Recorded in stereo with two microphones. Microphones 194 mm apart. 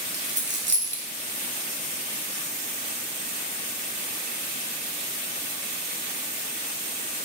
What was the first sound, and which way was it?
A dropped coin, 80° right.